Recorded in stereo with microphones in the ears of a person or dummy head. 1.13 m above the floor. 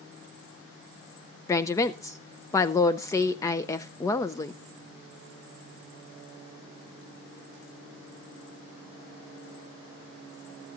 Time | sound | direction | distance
1.5 | a woman speaking | 20° left (ahead or behind) | 0.5 m